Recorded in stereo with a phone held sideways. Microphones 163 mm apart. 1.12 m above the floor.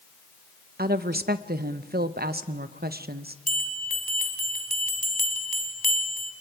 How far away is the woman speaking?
About 0.9 m.